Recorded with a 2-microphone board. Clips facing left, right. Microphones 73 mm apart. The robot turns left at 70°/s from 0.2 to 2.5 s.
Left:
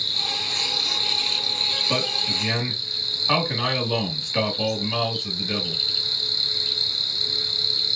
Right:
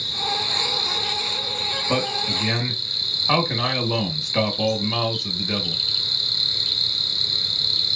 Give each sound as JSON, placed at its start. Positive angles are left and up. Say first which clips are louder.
{"t": 0.0, "sound": "an insect", "louder": "right 5 dB", "azimuth_deg": -175, "distance_m": 1.6}
{"t": 1.9, "sound": "a man speaking", "louder": "right 3 dB", "side_deg": -25, "distance_m": 1.5}